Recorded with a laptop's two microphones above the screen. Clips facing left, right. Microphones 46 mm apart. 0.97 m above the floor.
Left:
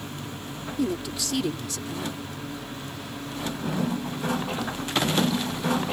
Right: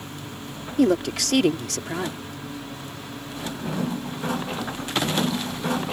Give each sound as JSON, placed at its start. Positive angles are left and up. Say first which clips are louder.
{"t": 0.8, "sound": "a woman speaking", "louder": "right 8 dB", "side_deg": -65}